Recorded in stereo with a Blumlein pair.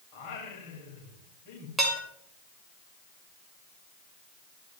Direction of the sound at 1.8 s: 10° right.